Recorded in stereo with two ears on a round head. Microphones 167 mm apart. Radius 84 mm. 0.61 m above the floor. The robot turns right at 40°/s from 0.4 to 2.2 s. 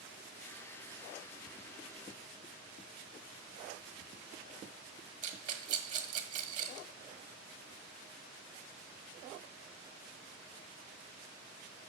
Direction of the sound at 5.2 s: 40° right (ahead or behind).